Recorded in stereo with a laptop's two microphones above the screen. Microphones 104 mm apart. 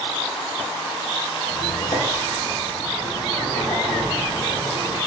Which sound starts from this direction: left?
A squeak, at 1.5 s.